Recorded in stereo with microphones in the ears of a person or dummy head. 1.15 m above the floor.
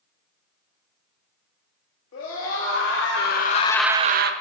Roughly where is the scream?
Left.